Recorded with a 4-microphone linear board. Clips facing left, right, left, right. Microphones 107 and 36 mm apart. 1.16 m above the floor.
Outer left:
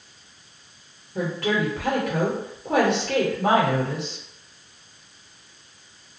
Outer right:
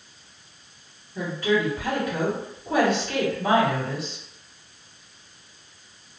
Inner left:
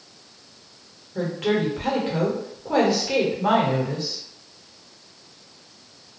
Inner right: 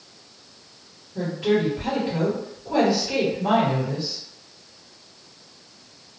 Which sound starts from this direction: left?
A woman speaking, at 1.1 s.